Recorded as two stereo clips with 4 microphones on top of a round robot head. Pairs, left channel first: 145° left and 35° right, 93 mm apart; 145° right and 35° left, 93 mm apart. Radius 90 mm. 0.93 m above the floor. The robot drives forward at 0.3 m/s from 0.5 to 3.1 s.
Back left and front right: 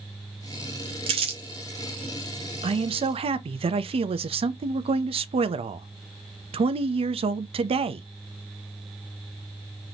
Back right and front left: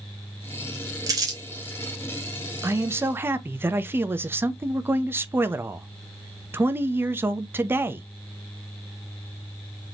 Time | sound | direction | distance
1.1 | crumpling | 15° right | 1.4 m
2.6 | a man speaking | 25° right | 0.7 m